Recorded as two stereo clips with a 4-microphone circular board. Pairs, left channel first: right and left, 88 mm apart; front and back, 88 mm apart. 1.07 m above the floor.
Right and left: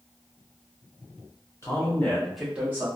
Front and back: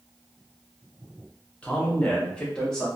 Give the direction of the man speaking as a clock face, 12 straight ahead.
2 o'clock.